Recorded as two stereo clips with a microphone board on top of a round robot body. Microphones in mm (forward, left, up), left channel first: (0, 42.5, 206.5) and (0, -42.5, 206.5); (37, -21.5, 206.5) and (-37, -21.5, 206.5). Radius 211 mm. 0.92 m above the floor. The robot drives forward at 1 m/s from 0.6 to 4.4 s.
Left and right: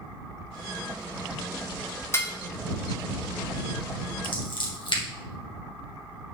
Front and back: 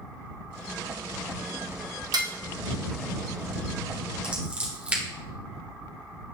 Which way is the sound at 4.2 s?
105° left.